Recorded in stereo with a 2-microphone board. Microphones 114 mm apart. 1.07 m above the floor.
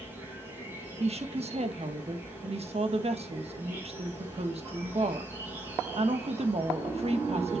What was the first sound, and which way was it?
An insect, 15° right (ahead or behind).